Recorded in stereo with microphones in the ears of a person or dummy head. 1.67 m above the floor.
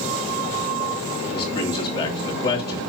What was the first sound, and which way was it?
A man speaking, 25° left (ahead or behind).